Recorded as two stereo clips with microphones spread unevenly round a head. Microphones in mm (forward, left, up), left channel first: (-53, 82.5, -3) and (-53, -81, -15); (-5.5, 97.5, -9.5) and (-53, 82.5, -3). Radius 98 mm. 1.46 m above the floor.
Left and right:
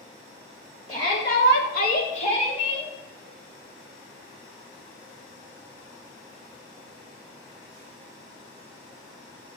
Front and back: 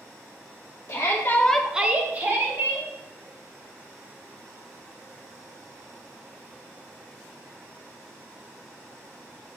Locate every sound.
0.9 s a shout: 25° left, 1.0 m; by 2.9 s 150° left, 2.5 m